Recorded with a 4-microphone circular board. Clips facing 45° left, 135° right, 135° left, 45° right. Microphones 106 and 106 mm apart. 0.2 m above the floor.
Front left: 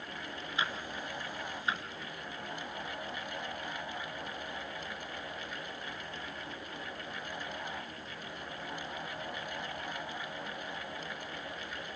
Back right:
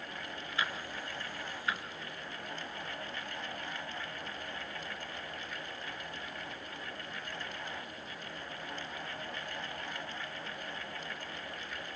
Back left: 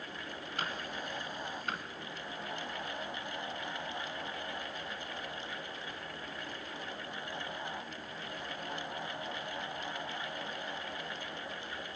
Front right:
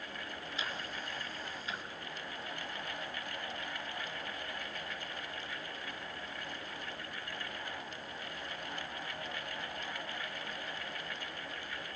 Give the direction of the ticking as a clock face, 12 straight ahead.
8 o'clock.